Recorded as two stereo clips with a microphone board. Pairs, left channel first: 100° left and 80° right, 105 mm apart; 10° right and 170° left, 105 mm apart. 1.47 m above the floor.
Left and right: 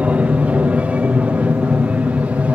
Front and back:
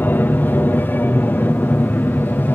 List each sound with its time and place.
0.0 s an aircraft: 30° right